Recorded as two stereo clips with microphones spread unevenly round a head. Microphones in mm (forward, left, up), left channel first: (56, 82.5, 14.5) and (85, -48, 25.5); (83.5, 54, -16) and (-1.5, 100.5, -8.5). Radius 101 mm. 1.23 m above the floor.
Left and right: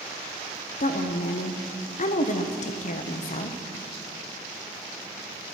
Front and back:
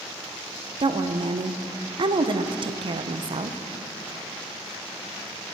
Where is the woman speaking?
125° left, 0.9 m.